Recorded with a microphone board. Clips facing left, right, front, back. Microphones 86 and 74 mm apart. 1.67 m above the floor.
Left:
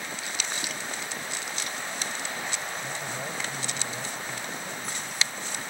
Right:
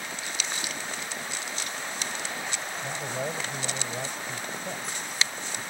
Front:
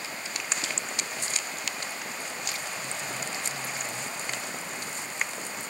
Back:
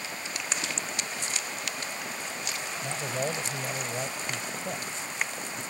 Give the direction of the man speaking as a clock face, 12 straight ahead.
5 o'clock.